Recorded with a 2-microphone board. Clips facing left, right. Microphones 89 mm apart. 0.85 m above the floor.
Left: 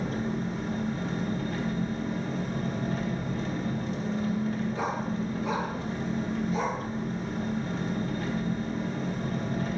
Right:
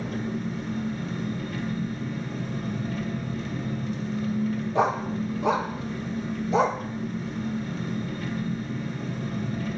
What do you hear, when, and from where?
0.0 s an engine running: 40° left (ahead or behind), 1.8 m
4.8 s a dog barking: 65° right (ahead or behind), 0.7 m